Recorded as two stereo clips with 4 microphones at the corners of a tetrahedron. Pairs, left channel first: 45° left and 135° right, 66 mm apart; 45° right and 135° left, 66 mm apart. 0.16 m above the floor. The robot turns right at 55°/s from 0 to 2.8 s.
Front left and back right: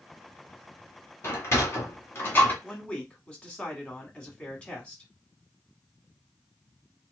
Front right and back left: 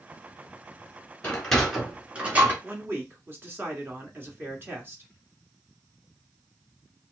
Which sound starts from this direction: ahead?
A sliding door, at 1.2 s.